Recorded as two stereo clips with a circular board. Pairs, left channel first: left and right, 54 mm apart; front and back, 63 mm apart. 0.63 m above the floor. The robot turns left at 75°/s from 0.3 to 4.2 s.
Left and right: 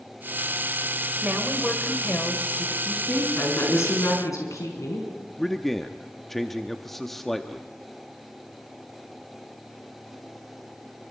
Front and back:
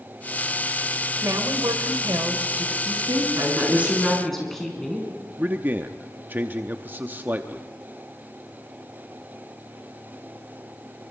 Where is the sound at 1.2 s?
145° right, 2.5 m; by 2.8 s 100° left, 2.5 m.